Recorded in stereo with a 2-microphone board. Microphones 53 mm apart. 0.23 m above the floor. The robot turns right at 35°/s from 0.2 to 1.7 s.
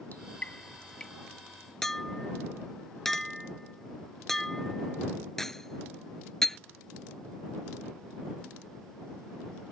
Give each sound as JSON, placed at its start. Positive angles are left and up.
{"t": 0.1, "sound": "dripping", "side_deg": 35}
{"t": 1.8, "sound": "a clink", "side_deg": 5}